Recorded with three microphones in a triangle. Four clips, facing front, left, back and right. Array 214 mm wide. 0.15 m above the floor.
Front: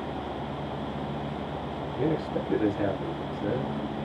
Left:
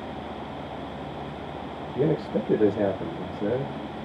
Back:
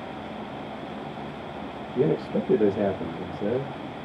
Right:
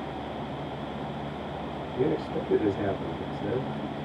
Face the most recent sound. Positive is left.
turn(degrees=140)